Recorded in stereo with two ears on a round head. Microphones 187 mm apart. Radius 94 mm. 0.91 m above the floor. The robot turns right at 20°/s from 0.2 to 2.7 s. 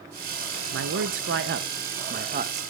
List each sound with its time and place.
0.7 s a man speaking: 75° right, 0.5 m; by 2.6 s 35° right, 0.5 m